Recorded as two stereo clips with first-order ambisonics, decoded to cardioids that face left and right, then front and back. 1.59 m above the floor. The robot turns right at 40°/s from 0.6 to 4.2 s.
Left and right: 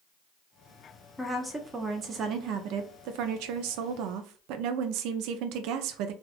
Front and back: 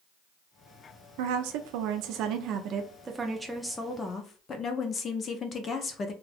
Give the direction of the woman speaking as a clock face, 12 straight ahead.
6 o'clock.